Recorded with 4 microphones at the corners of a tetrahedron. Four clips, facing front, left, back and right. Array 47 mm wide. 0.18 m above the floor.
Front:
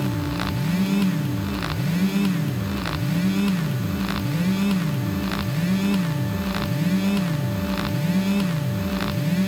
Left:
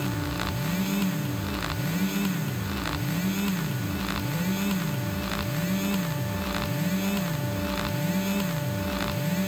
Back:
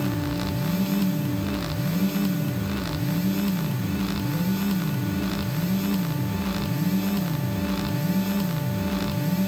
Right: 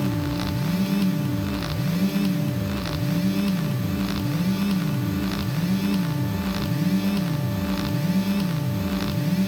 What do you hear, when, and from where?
Only background noise.